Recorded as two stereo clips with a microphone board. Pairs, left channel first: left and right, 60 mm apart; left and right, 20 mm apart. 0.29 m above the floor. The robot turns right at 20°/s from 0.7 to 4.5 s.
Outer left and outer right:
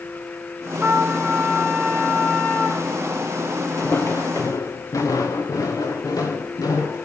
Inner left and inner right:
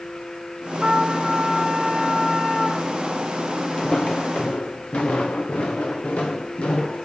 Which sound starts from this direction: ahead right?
A trumpet, at 0.8 s.